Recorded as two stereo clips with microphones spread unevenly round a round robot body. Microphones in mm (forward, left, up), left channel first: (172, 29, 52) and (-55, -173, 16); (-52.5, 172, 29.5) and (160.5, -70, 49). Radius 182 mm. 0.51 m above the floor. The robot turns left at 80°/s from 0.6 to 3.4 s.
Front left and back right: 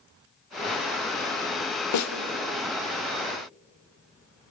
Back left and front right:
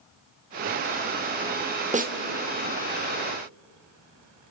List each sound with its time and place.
1.9 s a snare drum: 20° left, 1.9 m; by 2.1 s 5° left, 1.9 m